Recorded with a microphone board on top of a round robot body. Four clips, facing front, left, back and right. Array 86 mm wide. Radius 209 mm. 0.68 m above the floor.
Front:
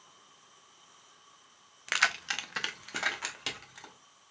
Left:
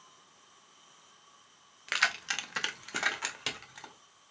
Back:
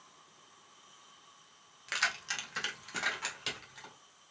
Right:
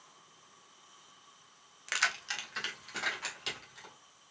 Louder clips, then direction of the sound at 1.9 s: Left 2 dB, front 5 dB; 15° left.